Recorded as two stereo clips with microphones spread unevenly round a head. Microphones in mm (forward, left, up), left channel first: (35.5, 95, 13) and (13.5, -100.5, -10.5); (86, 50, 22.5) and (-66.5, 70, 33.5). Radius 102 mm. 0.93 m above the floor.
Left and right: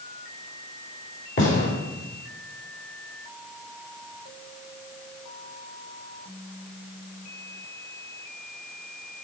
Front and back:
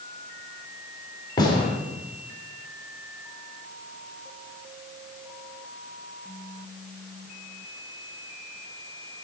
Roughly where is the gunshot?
Ahead left.